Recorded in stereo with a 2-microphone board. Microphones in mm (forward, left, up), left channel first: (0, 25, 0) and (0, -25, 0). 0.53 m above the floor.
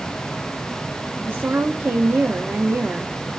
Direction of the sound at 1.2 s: 35° right (ahead or behind).